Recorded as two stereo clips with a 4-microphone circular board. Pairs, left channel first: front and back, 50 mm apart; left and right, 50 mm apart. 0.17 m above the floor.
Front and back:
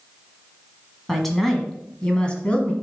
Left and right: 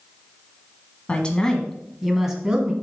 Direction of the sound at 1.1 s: 85° left.